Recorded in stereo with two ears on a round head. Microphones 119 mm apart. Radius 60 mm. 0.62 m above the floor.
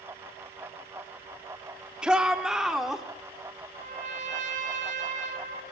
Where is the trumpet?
65° right (ahead or behind), 4 m.